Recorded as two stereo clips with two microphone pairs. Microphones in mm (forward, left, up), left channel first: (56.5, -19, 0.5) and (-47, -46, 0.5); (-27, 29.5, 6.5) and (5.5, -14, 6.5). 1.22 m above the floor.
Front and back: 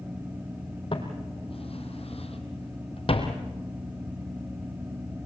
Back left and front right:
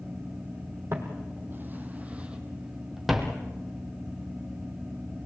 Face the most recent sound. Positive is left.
turn(degrees=40)